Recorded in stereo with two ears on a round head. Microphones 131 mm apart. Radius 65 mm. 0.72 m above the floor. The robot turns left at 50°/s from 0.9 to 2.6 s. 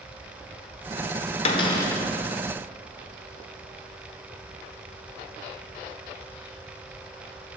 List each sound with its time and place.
1.4 s a cupboard door: 40° left (ahead or behind), 0.7 m; by 2.0 s 10° left (ahead or behind), 0.7 m